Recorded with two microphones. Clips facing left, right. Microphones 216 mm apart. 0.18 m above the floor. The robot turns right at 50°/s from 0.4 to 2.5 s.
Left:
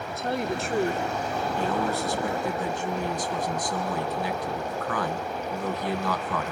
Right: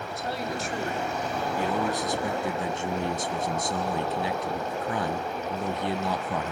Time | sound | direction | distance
0.1 | a woman speaking | 60° left | 2.5 m
1.6 | a man speaking | 10° right (ahead or behind) | 1.1 m